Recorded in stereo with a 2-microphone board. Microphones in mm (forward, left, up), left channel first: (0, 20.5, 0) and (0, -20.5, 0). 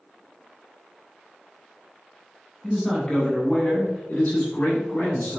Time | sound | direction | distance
2.6 | a man speaking | 5° left (ahead or behind) | 1.2 m